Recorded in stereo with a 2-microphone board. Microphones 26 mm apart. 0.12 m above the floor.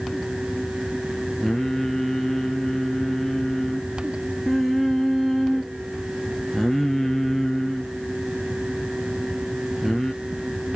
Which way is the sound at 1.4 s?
15° left (ahead or behind).